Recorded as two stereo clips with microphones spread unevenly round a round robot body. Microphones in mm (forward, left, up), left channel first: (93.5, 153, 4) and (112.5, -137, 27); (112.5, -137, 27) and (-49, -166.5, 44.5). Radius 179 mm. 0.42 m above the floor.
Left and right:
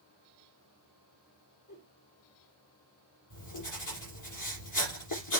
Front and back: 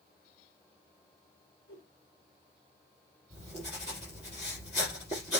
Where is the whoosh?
80° left, 6 m.